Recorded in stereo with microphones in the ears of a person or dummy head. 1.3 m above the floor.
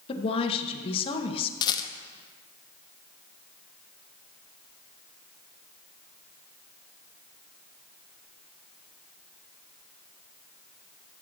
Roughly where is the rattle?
Left.